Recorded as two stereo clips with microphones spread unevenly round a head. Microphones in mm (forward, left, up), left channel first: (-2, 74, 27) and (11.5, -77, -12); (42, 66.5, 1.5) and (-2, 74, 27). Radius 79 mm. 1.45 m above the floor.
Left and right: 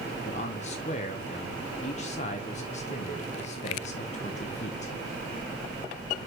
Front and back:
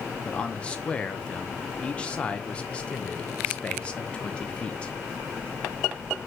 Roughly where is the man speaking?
Ahead left.